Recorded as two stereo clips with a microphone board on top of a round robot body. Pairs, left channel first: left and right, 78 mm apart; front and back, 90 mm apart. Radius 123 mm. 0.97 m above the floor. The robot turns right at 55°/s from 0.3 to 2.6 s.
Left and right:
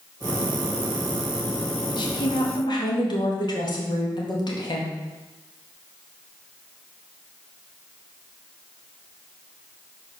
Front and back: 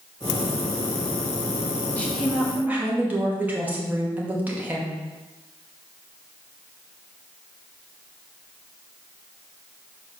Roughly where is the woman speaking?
Left.